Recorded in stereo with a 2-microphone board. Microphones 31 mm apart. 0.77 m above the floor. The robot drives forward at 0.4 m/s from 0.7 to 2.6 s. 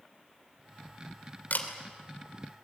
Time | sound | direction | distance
1.5 | a camera shutter | 70° left (ahead or behind) | 2.5 m